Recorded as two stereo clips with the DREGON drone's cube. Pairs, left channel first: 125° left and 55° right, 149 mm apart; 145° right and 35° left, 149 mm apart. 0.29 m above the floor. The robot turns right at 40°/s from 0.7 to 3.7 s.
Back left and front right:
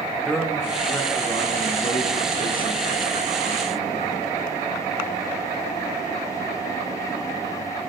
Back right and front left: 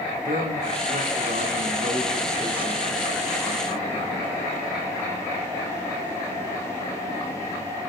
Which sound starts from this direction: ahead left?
A man speaking, at 0.2 s.